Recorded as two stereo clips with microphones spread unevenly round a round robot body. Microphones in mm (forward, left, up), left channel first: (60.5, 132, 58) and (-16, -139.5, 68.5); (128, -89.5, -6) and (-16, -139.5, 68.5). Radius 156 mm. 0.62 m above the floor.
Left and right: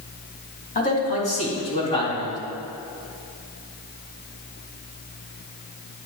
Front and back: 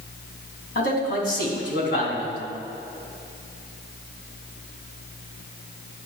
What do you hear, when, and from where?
0.8 s a man speaking: 15° left, 4 m; by 2.4 s straight ahead, 5 m